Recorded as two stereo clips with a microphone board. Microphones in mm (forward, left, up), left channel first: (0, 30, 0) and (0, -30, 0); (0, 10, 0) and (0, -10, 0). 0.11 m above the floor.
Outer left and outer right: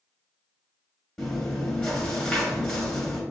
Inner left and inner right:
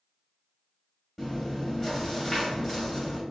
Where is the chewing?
10° left (ahead or behind), 1.8 m.